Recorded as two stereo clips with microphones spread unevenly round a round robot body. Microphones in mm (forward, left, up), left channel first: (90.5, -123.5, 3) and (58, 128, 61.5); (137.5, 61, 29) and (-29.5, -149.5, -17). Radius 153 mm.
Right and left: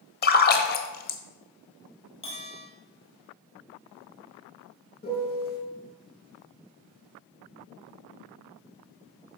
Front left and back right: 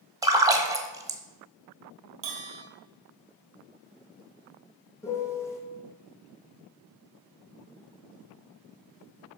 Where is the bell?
155° right, 1.8 m.